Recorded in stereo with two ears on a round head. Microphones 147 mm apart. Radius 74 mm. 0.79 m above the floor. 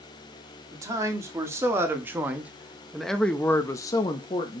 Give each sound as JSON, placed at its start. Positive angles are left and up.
{"t": 0.7, "sound": "a man speaking", "side_deg": -20, "distance_m": 1.9}